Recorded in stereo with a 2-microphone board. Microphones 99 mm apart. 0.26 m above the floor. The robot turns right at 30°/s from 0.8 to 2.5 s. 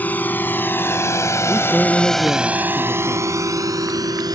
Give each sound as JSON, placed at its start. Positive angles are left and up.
{"t": 0.0, "sound": "a drone", "side_deg": 15}
{"t": 1.5, "sound": "a man speaking", "azimuth_deg": -10}